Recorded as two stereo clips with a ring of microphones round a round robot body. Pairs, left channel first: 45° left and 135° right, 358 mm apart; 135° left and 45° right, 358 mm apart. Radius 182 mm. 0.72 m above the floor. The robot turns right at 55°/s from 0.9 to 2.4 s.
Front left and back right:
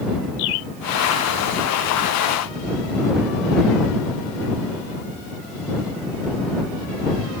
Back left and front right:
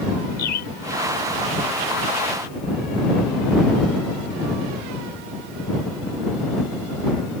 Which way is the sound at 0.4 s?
70° left.